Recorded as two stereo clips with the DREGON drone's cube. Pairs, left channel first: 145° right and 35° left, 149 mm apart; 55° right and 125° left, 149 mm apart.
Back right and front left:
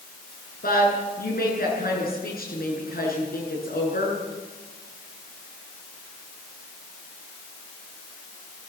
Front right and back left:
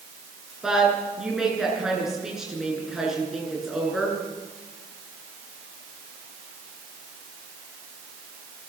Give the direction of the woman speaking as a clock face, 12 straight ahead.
5 o'clock.